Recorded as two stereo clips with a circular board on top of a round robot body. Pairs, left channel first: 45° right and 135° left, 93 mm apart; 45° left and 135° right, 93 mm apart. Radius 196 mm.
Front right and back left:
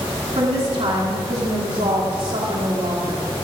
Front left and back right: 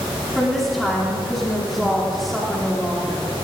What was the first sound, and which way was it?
A woman speaking, 135° left.